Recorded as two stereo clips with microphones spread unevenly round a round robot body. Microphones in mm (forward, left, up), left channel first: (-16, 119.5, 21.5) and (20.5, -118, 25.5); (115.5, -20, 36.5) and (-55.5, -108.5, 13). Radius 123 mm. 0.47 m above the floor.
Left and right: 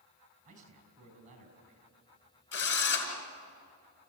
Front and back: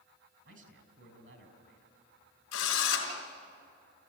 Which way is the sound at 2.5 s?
55° left.